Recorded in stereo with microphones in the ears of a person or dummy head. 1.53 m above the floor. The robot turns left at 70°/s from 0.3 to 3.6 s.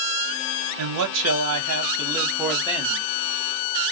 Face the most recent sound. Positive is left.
turn(degrees=95)